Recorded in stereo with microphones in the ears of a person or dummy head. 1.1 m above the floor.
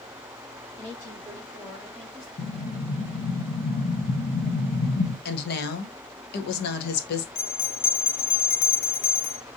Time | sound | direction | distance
0.8 | a woman speaking | 35° left (ahead or behind) | 2.5 m
2.4 | an explosion | 55° left (ahead or behind) | 0.8 m
5.2 | a woman speaking | 60° left (ahead or behind) | 1.2 m
7.3 | a bell | 45° left (ahead or behind) | 1.0 m